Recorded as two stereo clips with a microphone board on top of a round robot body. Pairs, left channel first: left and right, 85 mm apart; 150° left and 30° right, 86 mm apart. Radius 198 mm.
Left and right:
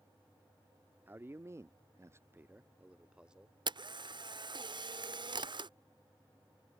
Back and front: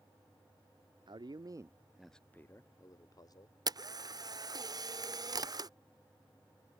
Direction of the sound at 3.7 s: 70° right.